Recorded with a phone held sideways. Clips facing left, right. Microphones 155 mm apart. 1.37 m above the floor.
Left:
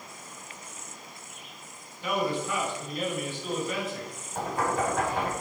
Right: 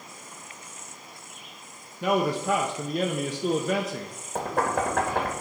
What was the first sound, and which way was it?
A man speaking, 80° right.